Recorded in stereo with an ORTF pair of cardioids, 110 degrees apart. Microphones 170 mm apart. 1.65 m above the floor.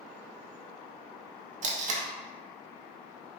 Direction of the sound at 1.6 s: 45° right.